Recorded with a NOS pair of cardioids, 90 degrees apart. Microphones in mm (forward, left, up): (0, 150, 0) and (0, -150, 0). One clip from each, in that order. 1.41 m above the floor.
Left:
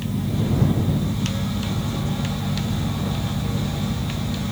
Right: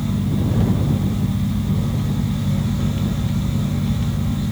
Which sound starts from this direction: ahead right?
A fan, at 0.0 s.